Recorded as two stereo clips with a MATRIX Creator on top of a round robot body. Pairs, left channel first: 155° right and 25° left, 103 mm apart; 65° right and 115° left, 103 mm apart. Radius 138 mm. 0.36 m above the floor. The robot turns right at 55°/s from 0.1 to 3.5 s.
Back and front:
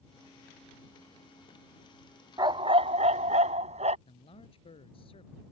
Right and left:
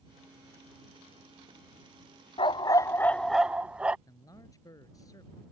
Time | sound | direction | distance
2.4 | a dog barking | 30° right | ?
4.1 | a man speaking | 125° right | ?